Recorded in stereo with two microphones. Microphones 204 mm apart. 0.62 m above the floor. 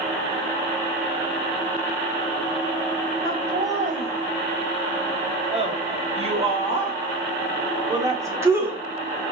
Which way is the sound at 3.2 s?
35° right (ahead or behind).